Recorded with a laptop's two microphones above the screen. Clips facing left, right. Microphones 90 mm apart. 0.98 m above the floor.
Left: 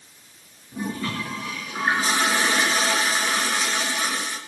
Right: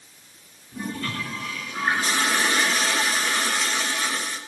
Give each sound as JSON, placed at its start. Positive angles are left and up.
{"t": 0.7, "sound": "a toilet flushing", "side_deg": 10, "distance_m": 3.5}